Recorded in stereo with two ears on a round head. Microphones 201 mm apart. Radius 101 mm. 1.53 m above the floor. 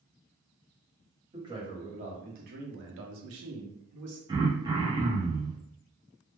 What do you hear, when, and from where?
1.3 s a man speaking: 20° right (ahead or behind), 1.3 m; by 4.2 s 70° right (ahead or behind), 0.9 m
4.3 s throat clearing: 20° right (ahead or behind), 0.7 m